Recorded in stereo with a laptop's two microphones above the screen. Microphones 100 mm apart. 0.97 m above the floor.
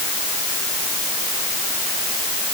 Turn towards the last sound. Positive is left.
No sound to turn to.